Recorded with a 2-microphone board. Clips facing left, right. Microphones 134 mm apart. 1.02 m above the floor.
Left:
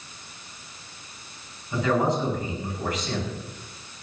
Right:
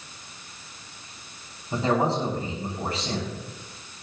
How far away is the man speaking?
About 6 m.